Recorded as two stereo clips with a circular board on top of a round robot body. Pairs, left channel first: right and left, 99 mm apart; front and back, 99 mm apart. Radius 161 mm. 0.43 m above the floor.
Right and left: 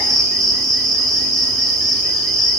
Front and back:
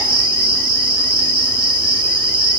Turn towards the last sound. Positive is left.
turn(degrees=-175)